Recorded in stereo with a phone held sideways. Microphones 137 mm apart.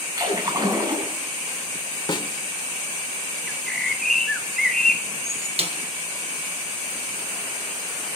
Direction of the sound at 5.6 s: 45° right (ahead or behind).